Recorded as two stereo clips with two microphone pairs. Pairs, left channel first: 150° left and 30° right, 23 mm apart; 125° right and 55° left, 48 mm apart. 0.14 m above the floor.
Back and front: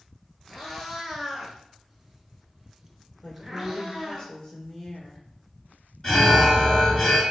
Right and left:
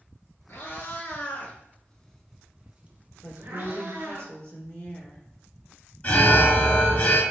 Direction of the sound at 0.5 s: 120° right.